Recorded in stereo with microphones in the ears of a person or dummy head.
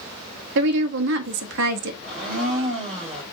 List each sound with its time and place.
0.6 s a woman speaking: 65° right (ahead or behind), 0.7 m
2.0 s a blender: 5° left (ahead or behind), 1.5 m